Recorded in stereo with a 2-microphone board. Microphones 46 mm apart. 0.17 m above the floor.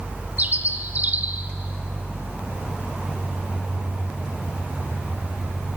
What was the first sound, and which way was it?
A bird, 35° right (ahead or behind).